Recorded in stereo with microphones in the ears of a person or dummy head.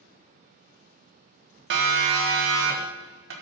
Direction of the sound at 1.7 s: 75° right (ahead or behind).